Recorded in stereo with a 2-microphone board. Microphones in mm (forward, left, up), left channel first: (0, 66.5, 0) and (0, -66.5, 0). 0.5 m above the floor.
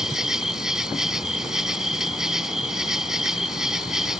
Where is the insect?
5° right (ahead or behind).